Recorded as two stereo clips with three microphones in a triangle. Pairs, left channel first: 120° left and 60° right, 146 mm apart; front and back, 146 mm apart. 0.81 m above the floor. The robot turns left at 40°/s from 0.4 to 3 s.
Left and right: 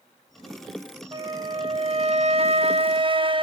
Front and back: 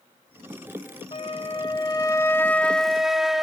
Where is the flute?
20° right, 0.7 m; by 3.4 s 95° right, 0.7 m.